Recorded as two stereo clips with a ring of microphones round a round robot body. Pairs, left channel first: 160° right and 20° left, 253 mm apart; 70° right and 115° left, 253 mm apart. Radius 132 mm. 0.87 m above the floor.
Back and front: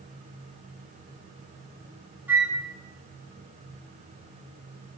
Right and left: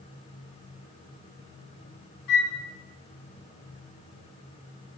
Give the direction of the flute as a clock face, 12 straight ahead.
2 o'clock.